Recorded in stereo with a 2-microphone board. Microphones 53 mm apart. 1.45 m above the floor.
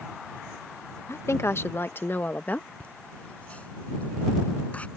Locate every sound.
1.1 s a woman speaking: 60° left (ahead or behind); by 2.7 s 30° left (ahead or behind)
2.8 s laughter: 25° left (ahead or behind)